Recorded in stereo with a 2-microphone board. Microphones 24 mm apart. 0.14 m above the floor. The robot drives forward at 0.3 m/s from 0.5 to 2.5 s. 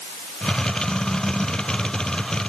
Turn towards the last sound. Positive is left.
No sound to turn to.